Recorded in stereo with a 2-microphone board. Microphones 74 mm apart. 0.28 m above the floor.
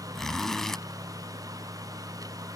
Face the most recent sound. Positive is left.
turn(degrees=5)  # may be behind; listen again after turning